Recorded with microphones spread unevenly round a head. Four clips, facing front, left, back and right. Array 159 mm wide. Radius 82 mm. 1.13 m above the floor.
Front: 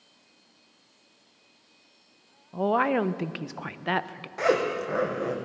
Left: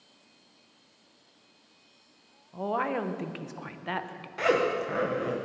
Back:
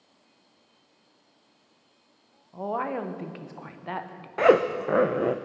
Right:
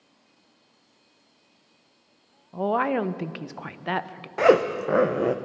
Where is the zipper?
125° right, 0.5 m.